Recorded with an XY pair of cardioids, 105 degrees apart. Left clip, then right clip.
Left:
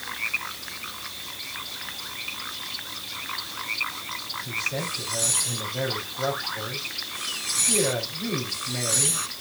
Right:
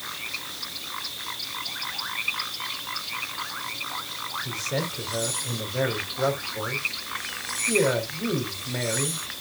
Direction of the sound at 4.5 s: 45° right.